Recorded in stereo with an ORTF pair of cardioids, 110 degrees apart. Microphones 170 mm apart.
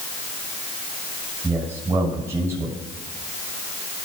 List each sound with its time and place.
1.4 s a man speaking: 20° right, 6 m